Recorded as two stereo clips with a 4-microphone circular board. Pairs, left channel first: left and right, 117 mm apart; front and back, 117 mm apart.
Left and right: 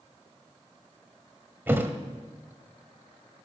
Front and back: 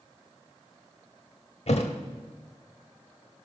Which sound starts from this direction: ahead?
A thud, at 1.7 s.